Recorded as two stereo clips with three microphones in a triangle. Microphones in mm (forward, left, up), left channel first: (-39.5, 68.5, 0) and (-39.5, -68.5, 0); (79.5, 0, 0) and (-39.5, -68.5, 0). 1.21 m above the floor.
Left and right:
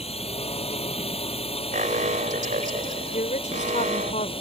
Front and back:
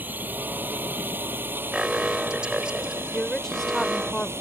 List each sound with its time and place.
0.0 s a drone: 135° left
1.7 s an alarm: 65° right
3.1 s a woman speaking: 115° left